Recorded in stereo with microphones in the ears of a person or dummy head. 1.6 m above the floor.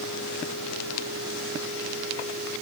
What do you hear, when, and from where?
Only background noise.